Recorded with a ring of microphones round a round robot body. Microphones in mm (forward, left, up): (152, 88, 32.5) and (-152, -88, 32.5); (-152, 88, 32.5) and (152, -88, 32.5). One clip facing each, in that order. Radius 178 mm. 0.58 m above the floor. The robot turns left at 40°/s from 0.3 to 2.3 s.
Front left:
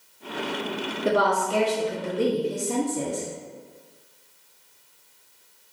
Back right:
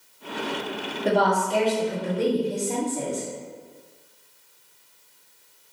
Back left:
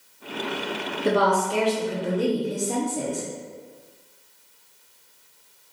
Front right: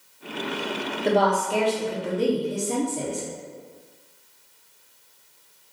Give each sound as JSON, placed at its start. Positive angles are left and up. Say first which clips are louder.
{"t": 1.1, "sound": "a woman speaking", "louder": "back right 1 dB, even", "azimuth_deg": 95, "distance_m": 1.0}